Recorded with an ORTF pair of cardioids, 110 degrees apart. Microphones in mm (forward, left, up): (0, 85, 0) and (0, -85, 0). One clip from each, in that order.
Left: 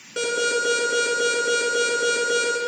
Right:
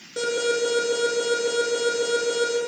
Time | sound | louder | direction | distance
0.2 | an alarm | left 1 dB | 25° left | 2 m